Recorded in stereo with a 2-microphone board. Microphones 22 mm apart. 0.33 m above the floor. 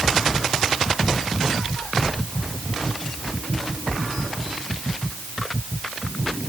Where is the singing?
I don't hear singing.